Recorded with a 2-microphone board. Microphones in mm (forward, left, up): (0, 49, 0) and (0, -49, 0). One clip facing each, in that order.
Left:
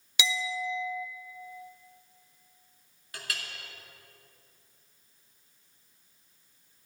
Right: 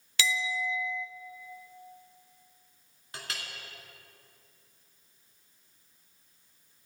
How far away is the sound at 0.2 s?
About 0.5 m.